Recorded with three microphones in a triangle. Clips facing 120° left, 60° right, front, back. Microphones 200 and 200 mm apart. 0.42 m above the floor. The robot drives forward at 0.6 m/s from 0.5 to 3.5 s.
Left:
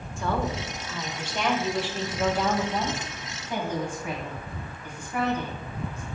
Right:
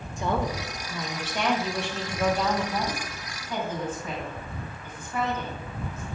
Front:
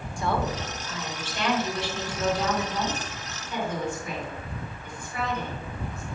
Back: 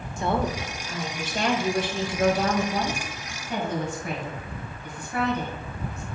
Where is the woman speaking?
125° right, 1.1 m; by 6.0 s 165° right, 2.5 m.